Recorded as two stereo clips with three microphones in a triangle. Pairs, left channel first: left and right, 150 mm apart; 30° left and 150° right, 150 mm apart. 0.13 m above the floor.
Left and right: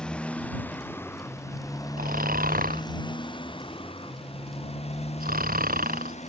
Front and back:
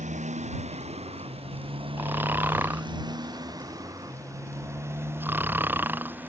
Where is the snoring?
70° right.